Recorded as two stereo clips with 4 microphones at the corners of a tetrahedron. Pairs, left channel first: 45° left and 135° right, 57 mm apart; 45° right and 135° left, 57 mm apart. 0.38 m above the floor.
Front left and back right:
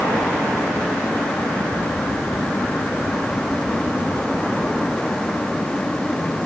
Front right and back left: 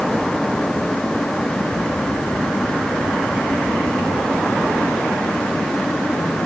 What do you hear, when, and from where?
Only background noise.